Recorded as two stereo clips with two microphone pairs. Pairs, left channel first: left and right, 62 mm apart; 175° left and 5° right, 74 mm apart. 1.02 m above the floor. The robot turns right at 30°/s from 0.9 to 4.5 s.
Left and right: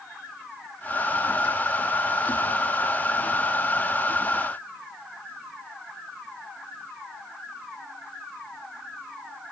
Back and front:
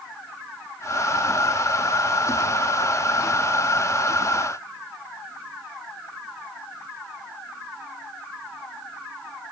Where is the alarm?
No alarm in this recording.